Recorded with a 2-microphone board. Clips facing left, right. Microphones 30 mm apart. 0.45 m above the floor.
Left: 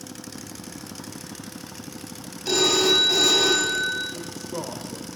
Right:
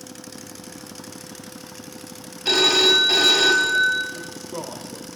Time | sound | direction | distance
2.5 | a phone ringing | 55° right (ahead or behind) | 2 m
4.1 | a man speaking | 10° right (ahead or behind) | 1.6 m